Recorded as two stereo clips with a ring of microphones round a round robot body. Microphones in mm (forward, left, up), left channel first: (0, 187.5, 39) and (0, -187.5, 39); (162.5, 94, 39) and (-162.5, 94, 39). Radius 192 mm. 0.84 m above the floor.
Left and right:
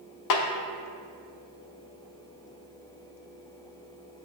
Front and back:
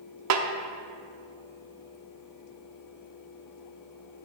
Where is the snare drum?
135° left, 0.6 m.